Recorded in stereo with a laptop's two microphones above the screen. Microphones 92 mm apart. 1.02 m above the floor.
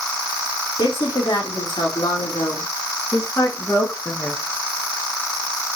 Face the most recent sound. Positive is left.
turn(degrees=0)  # may be behind; listen again after turning